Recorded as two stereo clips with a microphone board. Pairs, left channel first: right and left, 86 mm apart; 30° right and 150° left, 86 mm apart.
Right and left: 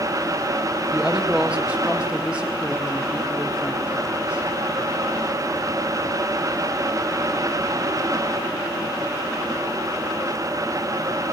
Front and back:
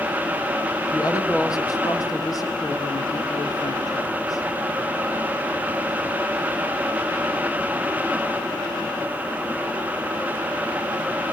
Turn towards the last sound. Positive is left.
turn(degrees=15)